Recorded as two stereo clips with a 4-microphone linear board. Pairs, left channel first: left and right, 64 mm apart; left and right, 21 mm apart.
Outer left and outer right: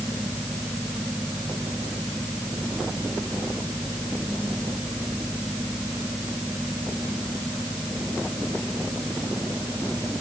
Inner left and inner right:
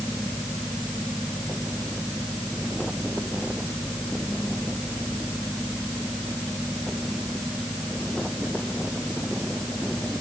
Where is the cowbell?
No cowbell in this recording.